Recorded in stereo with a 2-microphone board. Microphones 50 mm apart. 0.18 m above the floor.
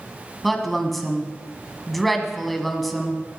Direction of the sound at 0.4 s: Centre (ahead or behind).